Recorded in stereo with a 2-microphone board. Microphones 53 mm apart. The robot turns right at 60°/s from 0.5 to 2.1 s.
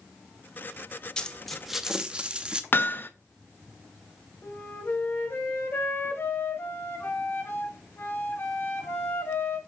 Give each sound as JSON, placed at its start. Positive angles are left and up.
{"t": 1.2, "sound": "a dropped coin", "azimuth_deg": 155, "distance_m": 0.7}
{"t": 2.7, "sound": "hammering", "side_deg": 40, "distance_m": 0.6}
{"t": 4.4, "sound": "a flute", "side_deg": 45, "distance_m": 1.7}